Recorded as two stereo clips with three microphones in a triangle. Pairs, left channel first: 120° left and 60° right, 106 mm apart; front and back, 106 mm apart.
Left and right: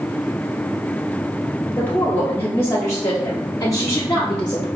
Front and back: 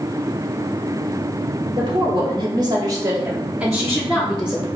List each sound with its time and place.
1.8 s a woman speaking: 170° right, 1.6 m; by 4.7 s 60° left, 1.3 m